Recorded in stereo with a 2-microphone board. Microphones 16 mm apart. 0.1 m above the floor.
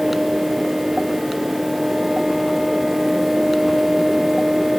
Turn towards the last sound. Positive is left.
No sound to turn to.